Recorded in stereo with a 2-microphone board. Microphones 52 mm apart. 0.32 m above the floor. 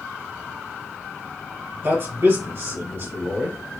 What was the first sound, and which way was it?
A man speaking, 55° right (ahead or behind).